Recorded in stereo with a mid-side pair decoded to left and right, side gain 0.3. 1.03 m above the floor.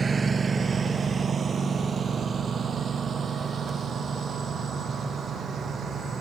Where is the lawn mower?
45° right; by 6.2 s 75° right.